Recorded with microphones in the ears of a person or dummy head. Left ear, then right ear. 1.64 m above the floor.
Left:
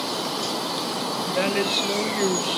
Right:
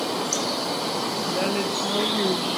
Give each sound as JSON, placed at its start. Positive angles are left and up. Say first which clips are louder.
{"t": 1.3, "sound": "a woman speaking", "louder": "left 4 dB", "side_deg": 25, "distance_m": 1.3}